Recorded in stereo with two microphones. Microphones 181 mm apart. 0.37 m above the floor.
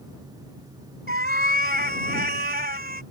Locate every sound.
1.1 s a cat meowing: 60° right (ahead or behind)